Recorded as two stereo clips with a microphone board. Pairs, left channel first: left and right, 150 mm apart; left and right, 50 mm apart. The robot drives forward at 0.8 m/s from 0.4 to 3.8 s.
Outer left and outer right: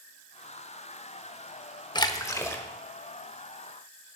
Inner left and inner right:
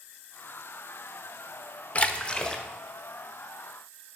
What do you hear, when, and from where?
1.9 s a splash: 30° left (ahead or behind), 0.6 m; by 2.6 s 15° left (ahead or behind), 1.1 m